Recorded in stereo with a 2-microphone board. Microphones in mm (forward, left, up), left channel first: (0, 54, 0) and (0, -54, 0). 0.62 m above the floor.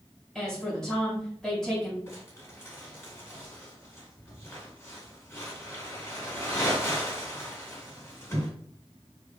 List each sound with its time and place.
0.3 s a woman speaking: 5° left (ahead or behind), 2.5 m
2.1 s crumpling: 25° left (ahead or behind), 2.5 m